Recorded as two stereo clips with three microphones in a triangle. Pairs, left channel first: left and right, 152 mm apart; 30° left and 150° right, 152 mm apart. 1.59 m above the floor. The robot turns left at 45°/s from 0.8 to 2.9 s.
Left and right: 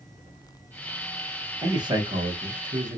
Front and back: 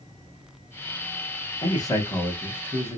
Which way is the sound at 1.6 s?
25° right.